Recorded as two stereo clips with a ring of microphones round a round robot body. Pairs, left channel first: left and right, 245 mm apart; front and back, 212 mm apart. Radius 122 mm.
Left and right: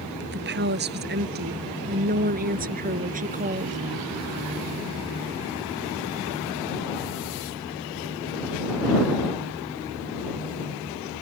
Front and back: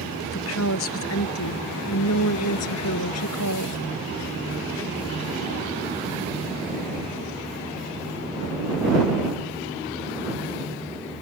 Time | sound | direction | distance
0.2 | a woman speaking | 40° right | ?